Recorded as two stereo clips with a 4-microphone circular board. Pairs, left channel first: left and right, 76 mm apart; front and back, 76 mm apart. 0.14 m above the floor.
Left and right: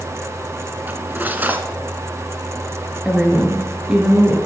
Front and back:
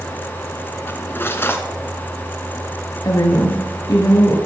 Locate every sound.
0.9 s cutlery clinking: 40° right, 1.1 m
3.0 s a woman speaking: 10° right, 2 m